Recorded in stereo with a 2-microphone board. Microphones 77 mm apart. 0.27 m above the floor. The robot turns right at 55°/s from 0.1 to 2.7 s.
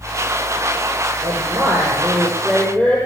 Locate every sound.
1.2 s a woman speaking: 60° right, 7.5 m; by 3.0 s 20° left, 7.5 m